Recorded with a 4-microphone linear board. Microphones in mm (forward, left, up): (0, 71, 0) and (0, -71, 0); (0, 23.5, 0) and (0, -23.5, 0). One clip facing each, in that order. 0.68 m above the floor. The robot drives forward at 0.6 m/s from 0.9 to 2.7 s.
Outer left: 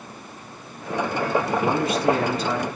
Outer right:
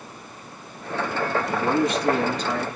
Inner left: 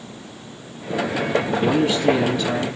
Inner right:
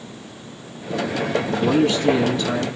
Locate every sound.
1.6 s a man speaking: 5° left (ahead or behind), 6.5 m